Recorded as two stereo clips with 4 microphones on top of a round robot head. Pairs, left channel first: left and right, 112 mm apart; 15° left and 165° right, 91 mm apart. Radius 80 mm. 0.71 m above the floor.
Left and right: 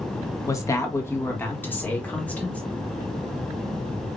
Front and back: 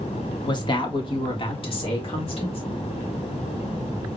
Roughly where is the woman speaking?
Ahead left.